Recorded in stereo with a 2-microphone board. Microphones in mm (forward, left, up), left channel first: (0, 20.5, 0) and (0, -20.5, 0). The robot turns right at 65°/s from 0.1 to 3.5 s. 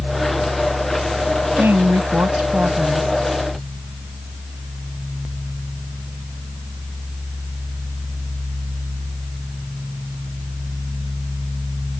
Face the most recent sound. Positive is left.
turn(degrees=15)